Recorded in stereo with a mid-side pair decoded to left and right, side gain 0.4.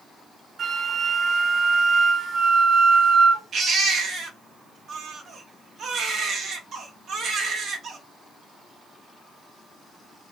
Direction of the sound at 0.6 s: 55° right.